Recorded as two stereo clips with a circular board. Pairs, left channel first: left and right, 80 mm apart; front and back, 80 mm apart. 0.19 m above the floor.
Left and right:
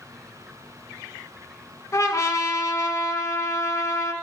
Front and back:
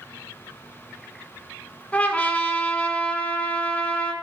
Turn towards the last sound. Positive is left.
turn(degrees=60)